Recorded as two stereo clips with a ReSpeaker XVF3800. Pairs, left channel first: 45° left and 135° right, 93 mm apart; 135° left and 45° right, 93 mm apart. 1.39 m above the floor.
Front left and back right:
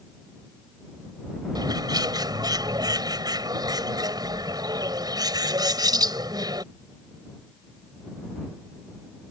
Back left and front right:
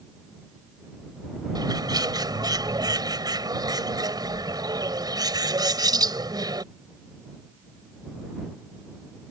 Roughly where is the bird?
Right.